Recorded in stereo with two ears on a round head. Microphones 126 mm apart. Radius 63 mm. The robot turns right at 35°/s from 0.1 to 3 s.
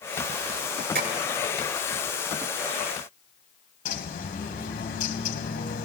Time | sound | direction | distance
0.9 | tapping | 75° right (ahead or behind) | 5.5 m
3.9 | a bird | 65° left (ahead or behind) | 1.6 m